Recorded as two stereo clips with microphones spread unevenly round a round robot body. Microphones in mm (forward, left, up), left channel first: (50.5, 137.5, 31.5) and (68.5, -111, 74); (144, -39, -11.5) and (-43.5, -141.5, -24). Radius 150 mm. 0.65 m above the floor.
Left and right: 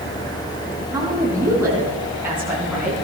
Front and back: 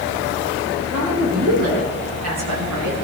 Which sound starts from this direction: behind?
A woman speaking, at 0.9 s.